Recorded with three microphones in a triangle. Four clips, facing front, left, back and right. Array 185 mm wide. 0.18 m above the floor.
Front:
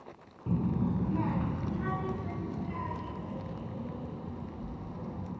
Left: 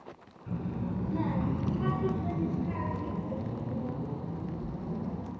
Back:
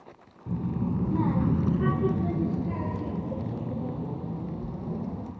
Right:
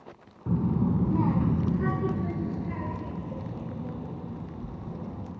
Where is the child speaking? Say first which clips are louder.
Right 9 dB, back 1 dB; 75° right, 1.2 m; by 5.3 s 170° left, 5 m.